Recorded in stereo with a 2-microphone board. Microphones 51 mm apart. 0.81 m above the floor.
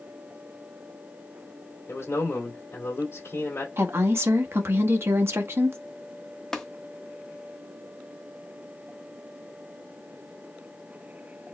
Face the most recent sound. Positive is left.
turn(degrees=10)  # may be behind; listen again after turning